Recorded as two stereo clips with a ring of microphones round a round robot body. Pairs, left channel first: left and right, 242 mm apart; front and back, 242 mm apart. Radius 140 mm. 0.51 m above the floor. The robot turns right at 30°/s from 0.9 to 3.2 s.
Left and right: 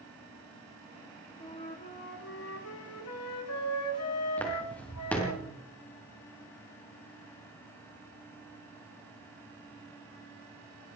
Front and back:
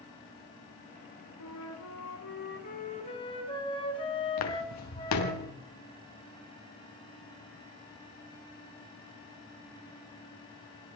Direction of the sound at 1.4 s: 15° left.